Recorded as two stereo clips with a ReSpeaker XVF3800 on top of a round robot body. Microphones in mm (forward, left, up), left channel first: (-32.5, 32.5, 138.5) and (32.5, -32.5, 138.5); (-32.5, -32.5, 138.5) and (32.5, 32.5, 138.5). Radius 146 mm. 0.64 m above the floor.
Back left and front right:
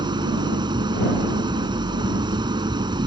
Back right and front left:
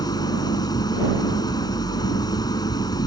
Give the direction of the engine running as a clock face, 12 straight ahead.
3 o'clock.